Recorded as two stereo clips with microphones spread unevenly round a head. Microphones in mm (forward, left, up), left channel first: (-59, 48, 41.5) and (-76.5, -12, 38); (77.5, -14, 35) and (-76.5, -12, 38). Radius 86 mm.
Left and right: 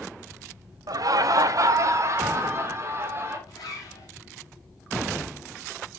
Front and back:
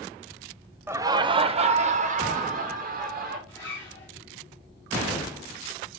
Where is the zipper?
75° left, 3 m.